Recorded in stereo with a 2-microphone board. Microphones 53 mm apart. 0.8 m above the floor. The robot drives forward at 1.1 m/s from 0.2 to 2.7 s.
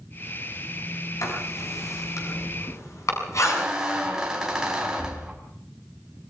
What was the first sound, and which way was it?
Writing, 80° left.